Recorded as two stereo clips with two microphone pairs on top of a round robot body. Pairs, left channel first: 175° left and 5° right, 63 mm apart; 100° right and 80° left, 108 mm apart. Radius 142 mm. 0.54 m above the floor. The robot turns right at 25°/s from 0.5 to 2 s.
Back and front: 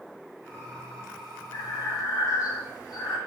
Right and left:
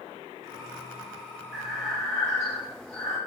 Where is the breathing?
175° left, 3 m; by 3.2 s 175° right, 3 m.